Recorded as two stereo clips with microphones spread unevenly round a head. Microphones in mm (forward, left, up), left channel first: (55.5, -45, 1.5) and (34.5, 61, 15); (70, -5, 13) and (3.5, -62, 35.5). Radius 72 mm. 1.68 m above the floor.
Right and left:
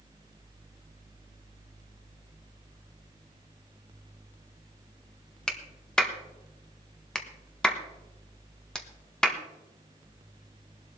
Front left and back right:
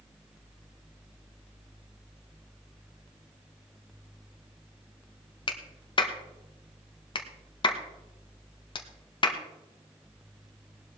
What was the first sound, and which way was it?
A clap, 5° left.